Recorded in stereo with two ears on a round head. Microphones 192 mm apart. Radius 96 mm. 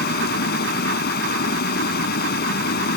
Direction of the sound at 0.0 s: 45° left (ahead or behind).